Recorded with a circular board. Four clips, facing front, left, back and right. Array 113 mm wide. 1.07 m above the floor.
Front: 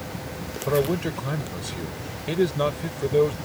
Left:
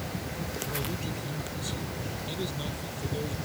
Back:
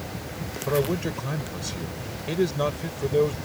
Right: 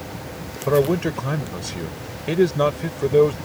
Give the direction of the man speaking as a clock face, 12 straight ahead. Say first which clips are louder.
Right 16 dB, front 2 dB; 3 o'clock.